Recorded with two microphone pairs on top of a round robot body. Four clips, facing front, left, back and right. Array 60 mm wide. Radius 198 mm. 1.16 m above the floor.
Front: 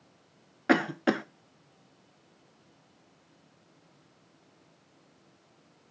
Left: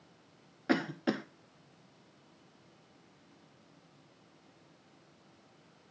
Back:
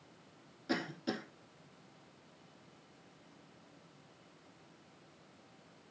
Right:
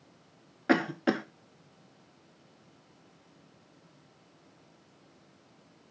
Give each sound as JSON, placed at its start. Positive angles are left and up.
{"t": 0.7, "sound": "a cough", "azimuth_deg": -15, "distance_m": 0.5}